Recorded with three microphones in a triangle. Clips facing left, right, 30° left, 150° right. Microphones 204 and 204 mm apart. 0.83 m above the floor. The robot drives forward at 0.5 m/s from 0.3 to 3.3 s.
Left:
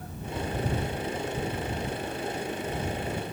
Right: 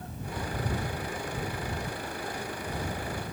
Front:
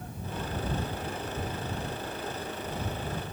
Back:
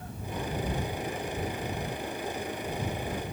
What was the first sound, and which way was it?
Only background noise.